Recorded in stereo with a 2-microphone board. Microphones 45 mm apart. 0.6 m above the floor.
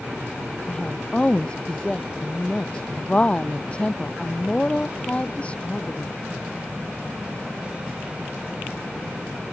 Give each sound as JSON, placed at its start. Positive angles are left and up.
{"t": 0.7, "sound": "a woman speaking", "side_deg": 20}